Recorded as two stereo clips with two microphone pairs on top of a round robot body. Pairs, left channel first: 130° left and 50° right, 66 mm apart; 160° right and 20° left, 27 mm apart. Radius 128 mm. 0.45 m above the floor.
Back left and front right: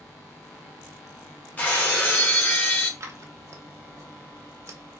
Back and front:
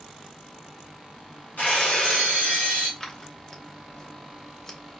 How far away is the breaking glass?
About 1.3 m.